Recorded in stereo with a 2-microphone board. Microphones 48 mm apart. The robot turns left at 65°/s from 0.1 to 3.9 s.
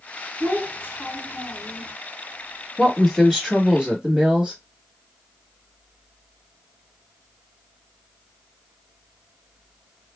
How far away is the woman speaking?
About 1.2 m.